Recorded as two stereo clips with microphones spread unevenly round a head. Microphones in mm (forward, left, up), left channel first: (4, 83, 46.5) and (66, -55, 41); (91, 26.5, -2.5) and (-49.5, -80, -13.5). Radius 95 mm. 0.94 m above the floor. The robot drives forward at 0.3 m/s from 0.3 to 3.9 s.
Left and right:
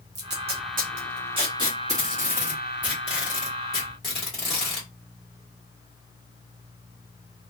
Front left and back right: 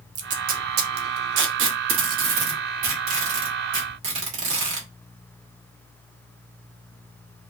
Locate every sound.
0.1 s tape being pulled: 100° right, 0.5 m; by 4.9 s 155° right, 1.3 m